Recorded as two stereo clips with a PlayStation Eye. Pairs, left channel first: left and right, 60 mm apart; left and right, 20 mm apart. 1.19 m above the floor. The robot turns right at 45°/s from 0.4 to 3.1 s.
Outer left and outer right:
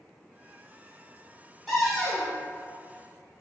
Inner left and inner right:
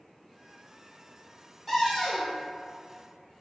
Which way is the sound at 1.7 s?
Centre (ahead or behind).